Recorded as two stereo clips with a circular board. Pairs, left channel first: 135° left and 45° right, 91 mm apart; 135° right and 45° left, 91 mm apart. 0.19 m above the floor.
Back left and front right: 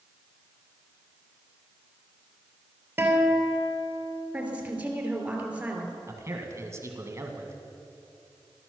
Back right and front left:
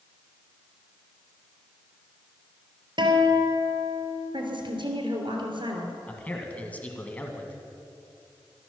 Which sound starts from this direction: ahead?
A guitar, at 3.0 s.